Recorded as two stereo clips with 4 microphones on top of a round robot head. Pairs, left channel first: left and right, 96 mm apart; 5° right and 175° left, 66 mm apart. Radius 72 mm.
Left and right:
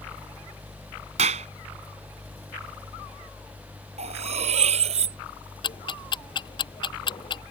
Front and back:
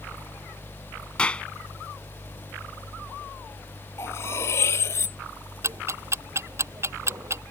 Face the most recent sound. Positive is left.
turn(degrees=130)